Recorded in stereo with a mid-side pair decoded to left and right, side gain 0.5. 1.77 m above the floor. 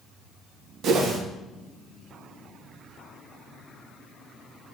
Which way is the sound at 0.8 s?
60° right.